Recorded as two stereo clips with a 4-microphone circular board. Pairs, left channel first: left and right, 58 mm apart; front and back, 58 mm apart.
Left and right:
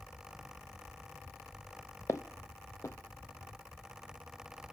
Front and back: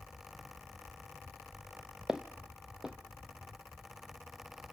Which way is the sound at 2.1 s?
105° left.